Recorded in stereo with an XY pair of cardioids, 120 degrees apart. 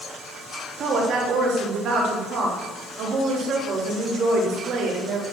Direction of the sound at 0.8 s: 60° right.